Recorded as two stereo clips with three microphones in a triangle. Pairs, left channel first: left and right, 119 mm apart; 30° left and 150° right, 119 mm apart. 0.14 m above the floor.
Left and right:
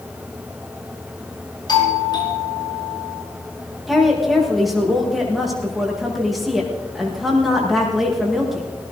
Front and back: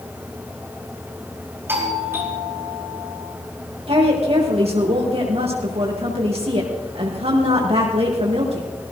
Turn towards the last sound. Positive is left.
turn(degrees=180)